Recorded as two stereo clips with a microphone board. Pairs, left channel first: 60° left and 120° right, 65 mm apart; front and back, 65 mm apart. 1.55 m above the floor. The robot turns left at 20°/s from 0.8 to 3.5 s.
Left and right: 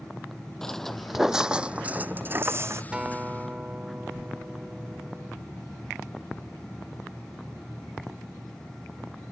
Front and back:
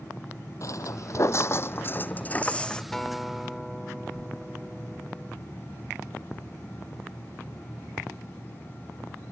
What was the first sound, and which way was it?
Footsteps, 20° right.